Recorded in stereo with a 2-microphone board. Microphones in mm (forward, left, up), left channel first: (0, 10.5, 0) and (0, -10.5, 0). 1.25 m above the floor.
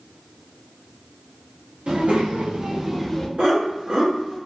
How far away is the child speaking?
About 1.0 m.